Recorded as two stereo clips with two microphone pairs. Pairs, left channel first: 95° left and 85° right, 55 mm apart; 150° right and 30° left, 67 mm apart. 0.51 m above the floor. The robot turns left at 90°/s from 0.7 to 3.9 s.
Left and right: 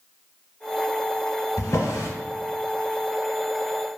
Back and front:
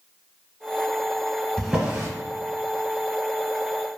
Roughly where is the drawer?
Behind left.